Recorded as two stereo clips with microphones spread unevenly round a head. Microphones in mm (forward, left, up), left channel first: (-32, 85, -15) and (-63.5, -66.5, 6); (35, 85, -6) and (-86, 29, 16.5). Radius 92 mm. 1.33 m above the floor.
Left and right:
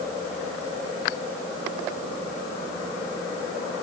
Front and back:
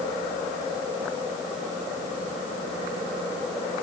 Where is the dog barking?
I don't hear a dog barking.